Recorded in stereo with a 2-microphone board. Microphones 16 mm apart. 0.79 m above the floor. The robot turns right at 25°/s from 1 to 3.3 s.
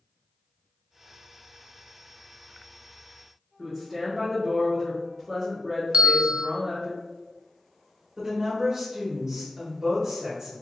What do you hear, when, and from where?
3.6 s a woman speaking: centre (ahead or behind), 1.5 m
5.9 s a bell: 85° right, 0.7 m
8.2 s a woman speaking: 40° right (ahead or behind), 1.6 m